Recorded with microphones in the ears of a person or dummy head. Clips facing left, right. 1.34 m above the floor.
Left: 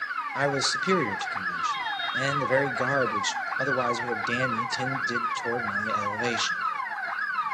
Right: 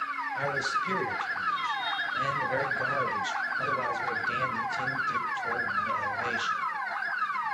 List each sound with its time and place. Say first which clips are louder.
0.3 s a man speaking: left 7 dB; 60° left (ahead or behind), 0.8 m